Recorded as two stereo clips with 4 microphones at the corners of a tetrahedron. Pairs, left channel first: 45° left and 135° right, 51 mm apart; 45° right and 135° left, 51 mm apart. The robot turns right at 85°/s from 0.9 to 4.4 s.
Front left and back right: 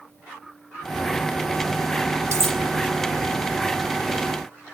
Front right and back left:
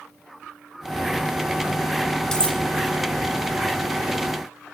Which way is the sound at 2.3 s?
125° right.